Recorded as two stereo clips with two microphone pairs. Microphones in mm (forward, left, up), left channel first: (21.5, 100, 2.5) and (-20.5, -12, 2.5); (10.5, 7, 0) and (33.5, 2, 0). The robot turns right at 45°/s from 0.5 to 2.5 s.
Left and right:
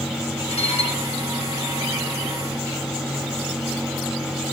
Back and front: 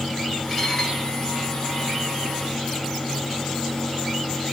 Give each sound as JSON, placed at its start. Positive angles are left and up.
{"t": 0.5, "sound": "dishes clattering", "azimuth_deg": 80, "distance_m": 1.8}